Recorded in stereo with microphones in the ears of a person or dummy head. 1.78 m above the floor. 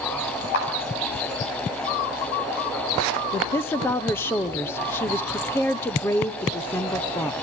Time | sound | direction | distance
0.5 | a clap | 65° left (ahead or behind) | 8.5 m
3.3 | a woman speaking | 10° left (ahead or behind) | 1.1 m